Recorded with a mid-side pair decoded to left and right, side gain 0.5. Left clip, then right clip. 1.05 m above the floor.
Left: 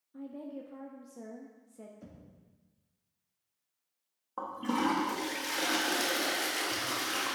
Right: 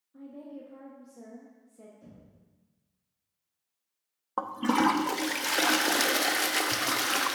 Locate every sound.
0.1 s a woman speaking: 20° left, 0.9 m
2.0 s knocking: 45° left, 1.6 m
4.4 s a toilet flushing: 55° right, 0.7 m